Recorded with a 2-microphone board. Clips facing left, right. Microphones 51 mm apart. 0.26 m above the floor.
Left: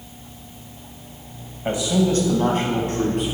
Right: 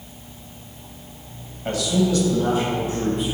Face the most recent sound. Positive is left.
turn(degrees=65)  # may be behind; listen again after turning